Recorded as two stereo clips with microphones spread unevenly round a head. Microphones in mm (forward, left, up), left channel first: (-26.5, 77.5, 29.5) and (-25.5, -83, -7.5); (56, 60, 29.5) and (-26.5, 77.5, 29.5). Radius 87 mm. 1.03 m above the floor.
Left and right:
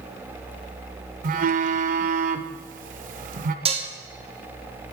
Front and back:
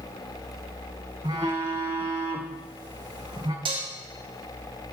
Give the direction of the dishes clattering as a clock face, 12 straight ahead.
5 o'clock.